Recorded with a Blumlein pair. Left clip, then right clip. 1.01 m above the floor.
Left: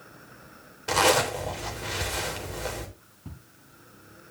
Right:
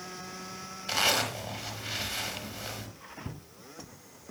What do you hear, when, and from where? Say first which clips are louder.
0.9 s a zipper: left 5 dB; 45° left, 3 m
3.2 s footsteps: right 4 dB; 10° right, 3.5 m